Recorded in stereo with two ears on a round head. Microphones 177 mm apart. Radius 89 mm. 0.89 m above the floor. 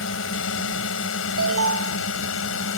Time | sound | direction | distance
0.0 | a drone | 75° left (ahead or behind) | ?
1.4 | an alarm | 80° right | ?